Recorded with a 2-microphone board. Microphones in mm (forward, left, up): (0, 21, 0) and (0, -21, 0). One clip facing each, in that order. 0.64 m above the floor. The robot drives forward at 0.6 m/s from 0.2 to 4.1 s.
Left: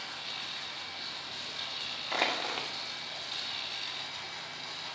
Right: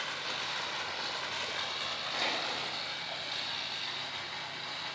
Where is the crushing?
50° left (ahead or behind), 0.9 m; by 2.7 s 40° left (ahead or behind), 1.1 m.